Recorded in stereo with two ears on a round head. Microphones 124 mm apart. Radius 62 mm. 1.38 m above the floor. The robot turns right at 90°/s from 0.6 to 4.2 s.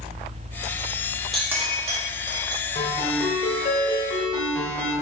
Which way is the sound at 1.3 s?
Centre (ahead or behind).